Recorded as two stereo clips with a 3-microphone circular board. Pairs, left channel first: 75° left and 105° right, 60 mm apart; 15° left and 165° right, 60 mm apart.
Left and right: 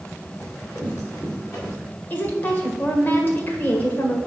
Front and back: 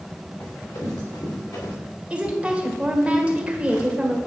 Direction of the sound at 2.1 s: 125° left.